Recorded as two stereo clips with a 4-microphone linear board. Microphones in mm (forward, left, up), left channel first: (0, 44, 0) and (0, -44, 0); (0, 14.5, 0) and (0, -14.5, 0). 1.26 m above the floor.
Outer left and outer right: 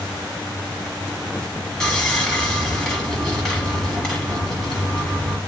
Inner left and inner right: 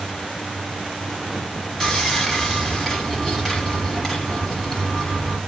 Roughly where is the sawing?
Centre.